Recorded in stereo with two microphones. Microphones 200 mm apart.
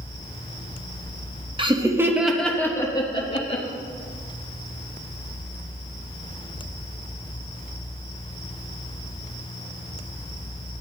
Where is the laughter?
25° right (ahead or behind), 0.9 m; by 3.6 s 30° left (ahead or behind), 1.3 m.